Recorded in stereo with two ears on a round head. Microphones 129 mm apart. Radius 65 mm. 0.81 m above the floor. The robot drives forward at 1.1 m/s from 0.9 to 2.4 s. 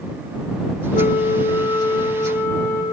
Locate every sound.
0.9 s a flute: 50° left (ahead or behind), 0.6 m; by 2.8 s 15° left (ahead or behind), 1.9 m